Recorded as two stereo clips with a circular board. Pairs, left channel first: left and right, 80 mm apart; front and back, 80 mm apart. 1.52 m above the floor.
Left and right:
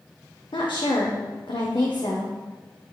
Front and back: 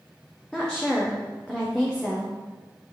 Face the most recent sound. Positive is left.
turn(degrees=80)